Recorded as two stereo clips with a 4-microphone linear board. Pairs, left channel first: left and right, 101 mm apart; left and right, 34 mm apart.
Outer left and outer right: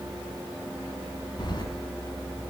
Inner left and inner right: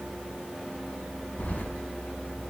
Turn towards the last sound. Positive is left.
turn(degrees=45)  # may be behind; listen again after turning